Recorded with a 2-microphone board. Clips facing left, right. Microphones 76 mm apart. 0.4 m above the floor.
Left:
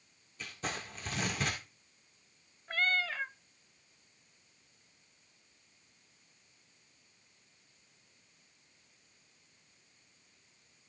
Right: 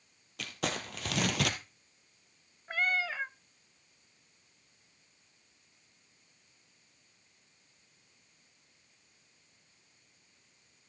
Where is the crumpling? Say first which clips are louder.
Right 4 dB; 85° right, 2.0 m.